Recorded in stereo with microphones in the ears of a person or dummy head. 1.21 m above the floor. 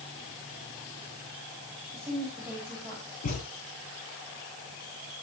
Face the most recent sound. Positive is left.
turn(degrees=40)  # may be behind; listen again after turning